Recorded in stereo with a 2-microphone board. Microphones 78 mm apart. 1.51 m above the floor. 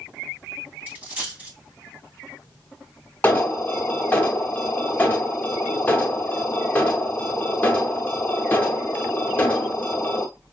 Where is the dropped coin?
25° right (ahead or behind), 2 m.